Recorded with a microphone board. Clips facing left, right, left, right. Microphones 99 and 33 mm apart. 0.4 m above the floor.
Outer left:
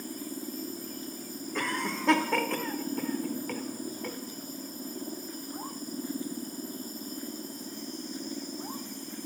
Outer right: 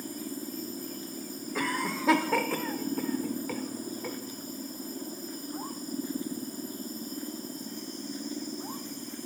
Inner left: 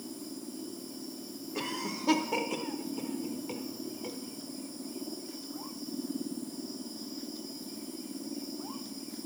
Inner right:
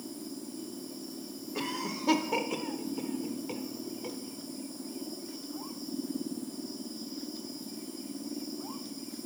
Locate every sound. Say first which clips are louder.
1.6 s a cough: outer right 1 dB, inner right 1 dB; 5° right (ahead or behind), 0.8 m